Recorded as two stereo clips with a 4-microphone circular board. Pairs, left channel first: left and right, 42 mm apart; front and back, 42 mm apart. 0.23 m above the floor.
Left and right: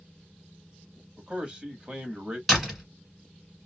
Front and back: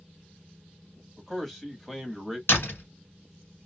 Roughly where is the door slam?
Ahead.